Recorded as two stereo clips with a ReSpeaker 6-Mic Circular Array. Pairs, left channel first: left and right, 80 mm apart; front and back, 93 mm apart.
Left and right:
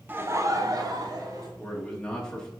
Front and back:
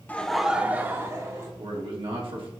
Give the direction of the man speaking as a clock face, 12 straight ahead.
6 o'clock.